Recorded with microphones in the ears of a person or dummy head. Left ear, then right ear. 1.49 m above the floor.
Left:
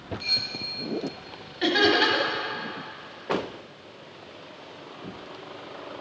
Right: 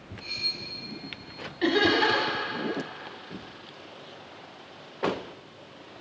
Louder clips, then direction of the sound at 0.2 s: Left 4 dB; 65° left (ahead or behind).